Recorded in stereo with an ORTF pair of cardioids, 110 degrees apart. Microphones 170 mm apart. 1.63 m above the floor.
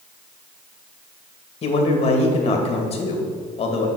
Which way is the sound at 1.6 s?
35° left.